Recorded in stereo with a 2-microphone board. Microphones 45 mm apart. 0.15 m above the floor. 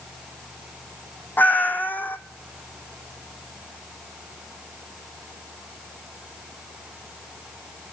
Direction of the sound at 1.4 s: 40° left (ahead or behind).